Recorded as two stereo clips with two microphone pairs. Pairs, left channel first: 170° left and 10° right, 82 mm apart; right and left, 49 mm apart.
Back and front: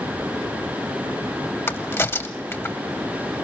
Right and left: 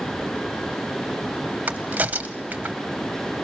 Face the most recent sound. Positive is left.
turn(degrees=125)